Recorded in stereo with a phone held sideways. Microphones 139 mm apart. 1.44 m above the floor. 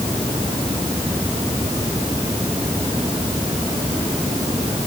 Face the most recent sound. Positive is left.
No sound to turn to.